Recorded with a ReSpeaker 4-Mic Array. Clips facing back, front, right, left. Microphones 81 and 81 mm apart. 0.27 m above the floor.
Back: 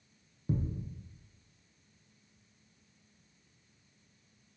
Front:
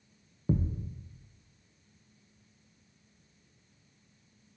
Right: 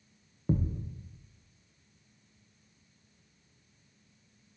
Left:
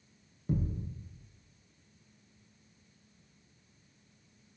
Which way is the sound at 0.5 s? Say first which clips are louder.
Front 4 dB, right 3 dB; 45° right.